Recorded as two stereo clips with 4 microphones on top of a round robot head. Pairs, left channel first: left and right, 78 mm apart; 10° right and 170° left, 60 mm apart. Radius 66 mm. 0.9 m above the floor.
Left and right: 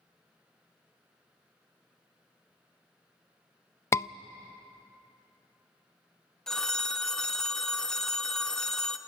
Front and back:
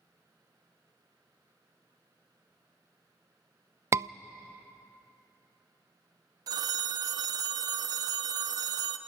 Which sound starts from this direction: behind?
A phone ringing, at 6.5 s.